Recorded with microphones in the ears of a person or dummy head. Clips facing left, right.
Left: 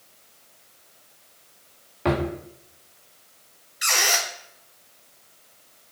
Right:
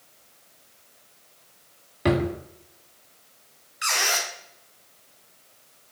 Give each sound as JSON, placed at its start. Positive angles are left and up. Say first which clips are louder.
{"t": 2.0, "sound": "a drawer", "louder": "right 1 dB", "side_deg": -20, "distance_m": 1.2}
{"t": 3.8, "sound": "a squeak", "louder": "left 2 dB", "side_deg": 20, "distance_m": 2.5}